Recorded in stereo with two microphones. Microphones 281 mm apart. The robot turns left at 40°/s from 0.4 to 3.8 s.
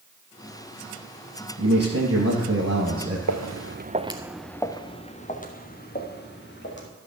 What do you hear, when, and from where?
1.6 s a man speaking: 80° right, 2.5 m; by 3.2 s 145° right, 2.5 m
3.3 s footsteps: 85° right, 0.9 m; by 6.9 s 40° left (ahead or behind), 2.5 m